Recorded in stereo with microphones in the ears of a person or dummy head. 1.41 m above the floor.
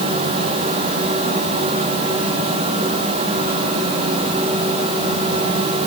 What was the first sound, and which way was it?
Only background noise.